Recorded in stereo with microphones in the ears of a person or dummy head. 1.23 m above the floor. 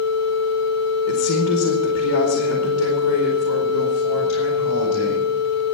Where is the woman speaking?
70° left (ahead or behind), 1.5 m.